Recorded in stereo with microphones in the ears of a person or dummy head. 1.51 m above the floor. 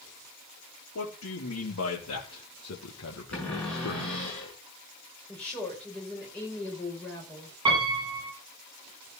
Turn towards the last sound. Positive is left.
turn(degrees=-25)  # may be behind; listen again after turning